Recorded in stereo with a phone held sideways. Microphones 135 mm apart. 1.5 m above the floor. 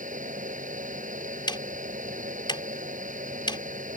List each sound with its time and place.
0.0 s a fan: 80° right
1.5 s ticking: 35° left (ahead or behind)